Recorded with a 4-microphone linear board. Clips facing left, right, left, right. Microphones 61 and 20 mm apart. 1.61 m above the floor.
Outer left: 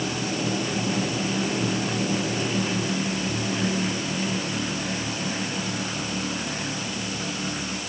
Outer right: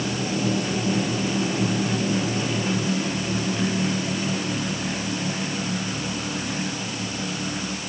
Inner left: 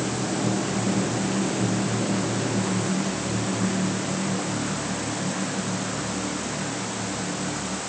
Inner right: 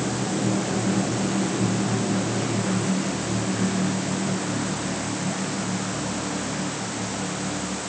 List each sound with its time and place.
Only background noise.